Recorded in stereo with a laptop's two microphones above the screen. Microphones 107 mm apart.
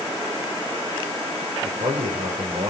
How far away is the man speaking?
About 3 m.